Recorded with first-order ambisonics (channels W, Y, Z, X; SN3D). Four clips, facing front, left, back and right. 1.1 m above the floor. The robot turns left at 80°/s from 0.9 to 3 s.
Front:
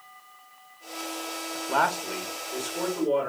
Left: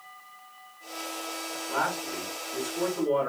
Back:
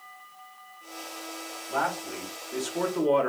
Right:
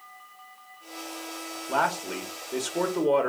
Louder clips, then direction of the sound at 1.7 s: Right 4 dB, front 4 dB; 25° right.